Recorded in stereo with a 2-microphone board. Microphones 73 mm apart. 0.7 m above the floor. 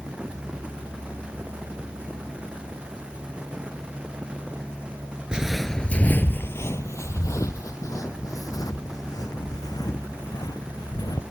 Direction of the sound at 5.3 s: 15° right (ahead or behind).